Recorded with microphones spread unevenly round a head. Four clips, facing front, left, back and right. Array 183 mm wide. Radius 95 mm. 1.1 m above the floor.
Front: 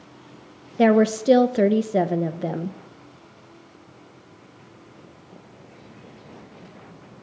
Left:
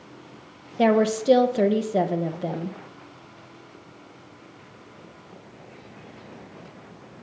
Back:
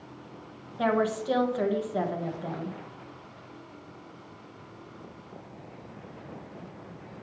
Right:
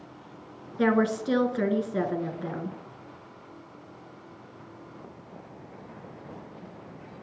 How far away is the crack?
I don't hear a crack.